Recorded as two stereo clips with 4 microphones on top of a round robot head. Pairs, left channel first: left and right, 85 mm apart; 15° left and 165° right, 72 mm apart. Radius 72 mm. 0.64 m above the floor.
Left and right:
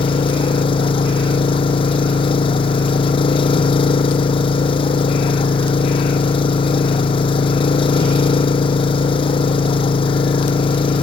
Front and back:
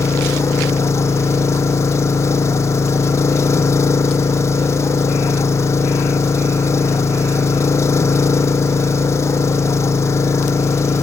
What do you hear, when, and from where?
0.0 s an engine running: 65° left